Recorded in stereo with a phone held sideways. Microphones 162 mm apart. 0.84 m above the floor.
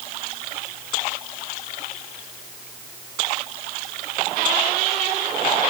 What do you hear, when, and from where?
Only background noise.